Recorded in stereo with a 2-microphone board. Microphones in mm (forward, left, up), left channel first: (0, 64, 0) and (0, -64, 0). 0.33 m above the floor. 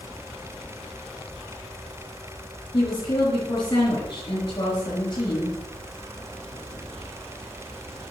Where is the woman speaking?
35° left (ahead or behind), 4.5 m.